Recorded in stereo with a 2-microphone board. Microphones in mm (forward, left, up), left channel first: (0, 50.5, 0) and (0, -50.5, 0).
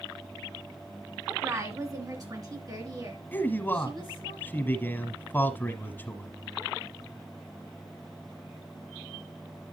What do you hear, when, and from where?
1.3 s a woman speaking: 30° right (ahead or behind), 2 m; by 4.3 s 45° right (ahead or behind), 4.5 m
3.3 s a man speaking: 20° left (ahead or behind), 1.2 m